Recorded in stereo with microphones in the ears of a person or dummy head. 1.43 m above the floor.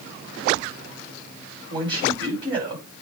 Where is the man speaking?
10° right (ahead or behind), 6 m.